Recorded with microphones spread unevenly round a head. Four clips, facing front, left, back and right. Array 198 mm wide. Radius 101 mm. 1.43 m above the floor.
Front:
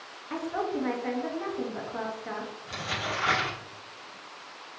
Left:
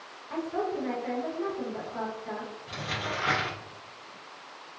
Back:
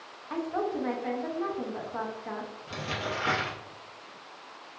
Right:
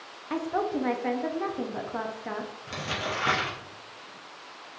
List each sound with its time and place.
0.3 s a woman speaking: 70° right, 0.6 m
2.7 s crumpling: 115° right, 0.8 m